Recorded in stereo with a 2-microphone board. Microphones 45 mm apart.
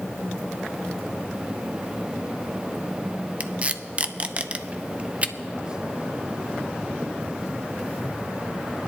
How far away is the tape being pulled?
About 0.6 m.